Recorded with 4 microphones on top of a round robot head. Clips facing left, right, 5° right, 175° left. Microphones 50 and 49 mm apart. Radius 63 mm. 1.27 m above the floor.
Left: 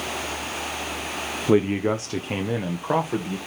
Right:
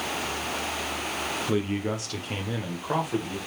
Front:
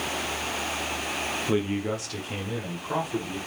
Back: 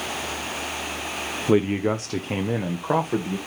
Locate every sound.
1.5 s a man speaking: 125° left, 0.6 m; by 3.4 s 155° left, 1.4 m